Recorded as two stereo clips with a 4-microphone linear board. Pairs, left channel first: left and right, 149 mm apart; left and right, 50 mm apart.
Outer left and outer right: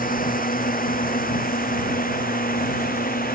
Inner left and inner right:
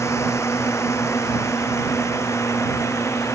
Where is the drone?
65° left (ahead or behind); by 3.4 s 70° left (ahead or behind).